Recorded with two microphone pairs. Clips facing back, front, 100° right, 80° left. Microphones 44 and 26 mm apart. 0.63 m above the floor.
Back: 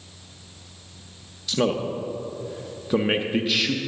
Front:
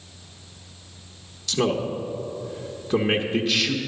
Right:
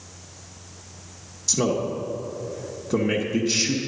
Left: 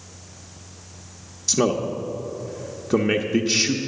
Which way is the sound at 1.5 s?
110° left.